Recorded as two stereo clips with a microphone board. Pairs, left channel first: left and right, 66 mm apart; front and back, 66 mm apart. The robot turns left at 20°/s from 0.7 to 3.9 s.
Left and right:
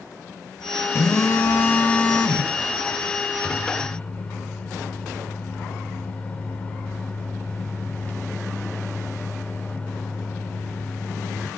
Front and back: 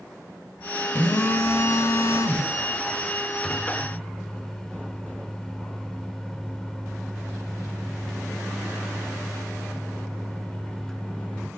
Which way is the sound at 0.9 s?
50° left.